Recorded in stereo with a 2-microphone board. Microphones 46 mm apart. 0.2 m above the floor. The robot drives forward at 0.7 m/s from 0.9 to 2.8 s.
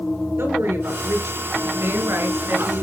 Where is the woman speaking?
65° right (ahead or behind), 4 m; by 2.9 s 70° right (ahead or behind), 4 m.